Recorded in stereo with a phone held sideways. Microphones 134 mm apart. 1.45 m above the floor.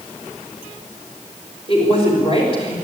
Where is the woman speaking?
45° left (ahead or behind), 6 m.